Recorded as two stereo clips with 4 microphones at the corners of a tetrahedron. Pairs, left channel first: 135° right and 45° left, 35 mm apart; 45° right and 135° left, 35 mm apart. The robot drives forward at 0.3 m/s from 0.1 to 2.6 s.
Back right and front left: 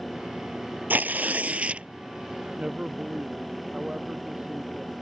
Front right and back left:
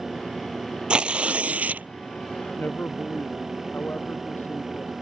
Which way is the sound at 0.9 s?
75° left.